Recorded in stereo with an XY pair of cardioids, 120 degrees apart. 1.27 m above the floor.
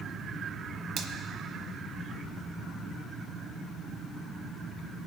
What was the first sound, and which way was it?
A finger snap, 70° right.